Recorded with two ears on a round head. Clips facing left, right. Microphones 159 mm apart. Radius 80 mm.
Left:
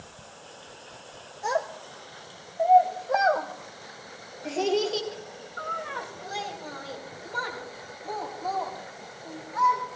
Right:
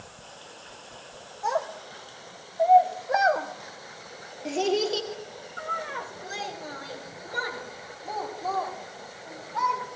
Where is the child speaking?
20° left (ahead or behind), 1.2 m; by 9.8 s 20° right (ahead or behind), 7.5 m.